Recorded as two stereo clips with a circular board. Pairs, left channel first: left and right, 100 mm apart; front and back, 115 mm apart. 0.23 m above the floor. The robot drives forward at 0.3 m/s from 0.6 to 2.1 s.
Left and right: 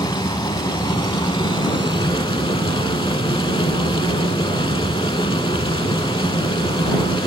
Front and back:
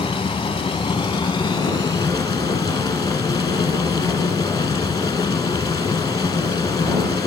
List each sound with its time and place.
0.0 s running water: 50° left, 2 m; by 7.3 s 60° left, 1.8 m